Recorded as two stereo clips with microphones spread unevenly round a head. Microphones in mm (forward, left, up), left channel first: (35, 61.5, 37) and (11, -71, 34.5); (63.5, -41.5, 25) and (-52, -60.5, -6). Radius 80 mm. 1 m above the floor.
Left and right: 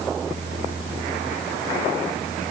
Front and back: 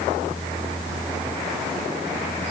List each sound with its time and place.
Only background noise.